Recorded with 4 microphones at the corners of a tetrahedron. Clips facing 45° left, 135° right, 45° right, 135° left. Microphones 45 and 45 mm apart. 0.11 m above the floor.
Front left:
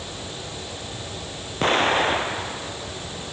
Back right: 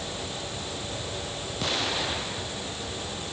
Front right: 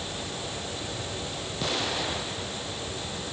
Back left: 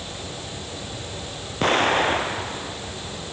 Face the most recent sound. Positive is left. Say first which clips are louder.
# front left 10 dB, back left 11 dB
turn(degrees=95)